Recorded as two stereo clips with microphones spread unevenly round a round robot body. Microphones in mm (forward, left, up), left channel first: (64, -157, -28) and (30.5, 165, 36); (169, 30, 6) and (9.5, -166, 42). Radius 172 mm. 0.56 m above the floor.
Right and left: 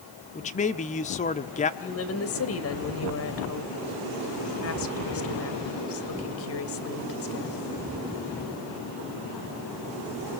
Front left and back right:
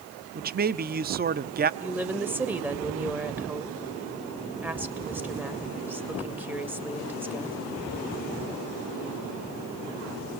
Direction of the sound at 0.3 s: 95° right.